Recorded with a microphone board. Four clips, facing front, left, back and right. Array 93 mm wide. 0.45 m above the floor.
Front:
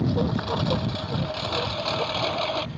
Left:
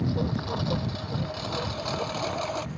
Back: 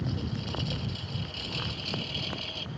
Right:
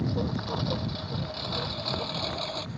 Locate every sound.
0.0 s a lawn mower: straight ahead; by 2.8 s 20° left